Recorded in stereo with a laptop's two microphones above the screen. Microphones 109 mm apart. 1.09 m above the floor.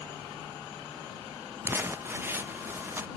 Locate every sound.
1.6 s crumpling: 20° right (ahead or behind)